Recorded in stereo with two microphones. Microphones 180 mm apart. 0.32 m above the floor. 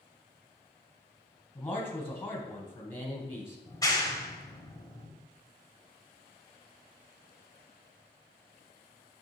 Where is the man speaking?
15° left (ahead or behind), 1.8 m.